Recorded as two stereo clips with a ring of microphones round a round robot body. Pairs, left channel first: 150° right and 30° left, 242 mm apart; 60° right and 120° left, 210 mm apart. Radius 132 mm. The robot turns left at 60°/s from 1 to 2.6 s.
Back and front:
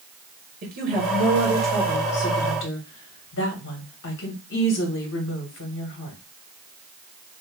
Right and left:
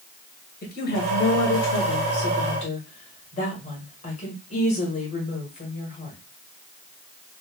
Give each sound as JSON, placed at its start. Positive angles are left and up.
{"t": 0.6, "sound": "a woman speaking", "azimuth_deg": -20, "distance_m": 1.6}